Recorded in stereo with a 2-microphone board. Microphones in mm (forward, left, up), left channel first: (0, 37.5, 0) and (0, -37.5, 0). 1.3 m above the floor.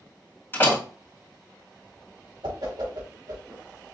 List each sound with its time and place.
0.5 s a door slam: 30° left (ahead or behind), 2.5 m
2.4 s a whoosh: 80° right, 2.5 m